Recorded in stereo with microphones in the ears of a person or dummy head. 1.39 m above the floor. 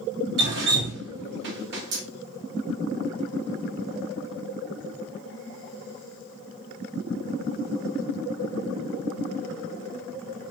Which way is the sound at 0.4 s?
55° right (ahead or behind).